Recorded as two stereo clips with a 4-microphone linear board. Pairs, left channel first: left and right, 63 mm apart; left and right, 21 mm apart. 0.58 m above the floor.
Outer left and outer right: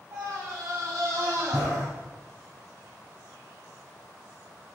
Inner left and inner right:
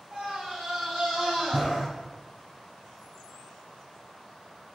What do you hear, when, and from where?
0.1 s a scream: 55° right (ahead or behind), 4 m; by 1.9 s 65° right (ahead or behind), 2.5 m